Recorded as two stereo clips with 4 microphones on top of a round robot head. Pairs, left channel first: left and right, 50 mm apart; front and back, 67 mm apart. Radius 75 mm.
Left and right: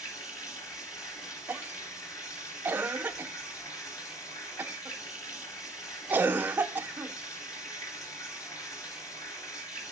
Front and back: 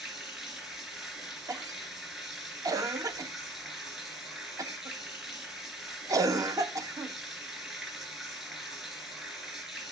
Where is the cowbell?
I don't hear a cowbell.